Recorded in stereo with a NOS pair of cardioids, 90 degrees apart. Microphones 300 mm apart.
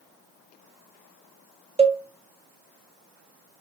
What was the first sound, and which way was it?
A cowbell, 20° right.